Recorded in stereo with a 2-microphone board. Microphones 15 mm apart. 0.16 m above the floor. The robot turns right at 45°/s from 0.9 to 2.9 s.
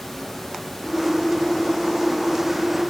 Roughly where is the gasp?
I don't hear a gasp.